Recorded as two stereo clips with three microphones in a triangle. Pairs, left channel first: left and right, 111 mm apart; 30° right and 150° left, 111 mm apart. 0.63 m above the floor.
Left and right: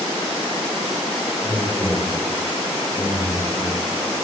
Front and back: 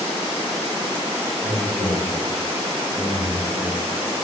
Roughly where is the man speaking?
Ahead.